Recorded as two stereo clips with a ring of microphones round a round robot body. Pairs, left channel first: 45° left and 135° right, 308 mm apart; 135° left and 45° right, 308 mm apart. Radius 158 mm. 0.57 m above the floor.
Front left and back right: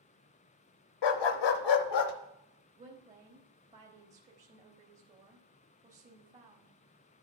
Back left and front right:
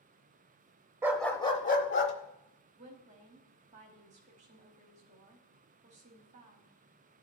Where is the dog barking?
35° left, 0.6 m; by 2.1 s 85° left, 0.8 m.